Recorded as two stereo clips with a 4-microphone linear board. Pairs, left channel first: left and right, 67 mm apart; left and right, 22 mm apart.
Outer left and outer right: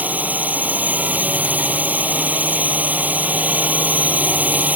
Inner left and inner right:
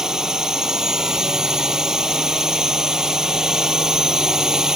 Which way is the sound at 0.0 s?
25° right (ahead or behind).